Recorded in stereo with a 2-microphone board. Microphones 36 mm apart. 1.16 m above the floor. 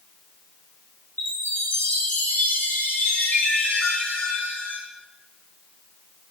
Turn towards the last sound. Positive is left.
turn(degrees=85)